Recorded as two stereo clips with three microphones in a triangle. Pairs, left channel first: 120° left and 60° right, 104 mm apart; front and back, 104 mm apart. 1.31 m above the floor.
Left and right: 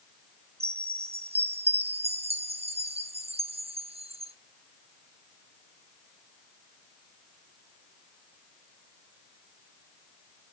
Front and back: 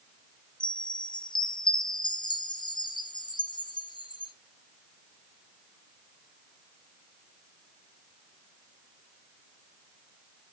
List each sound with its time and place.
0.6 s a chime: 45° right, 0.7 m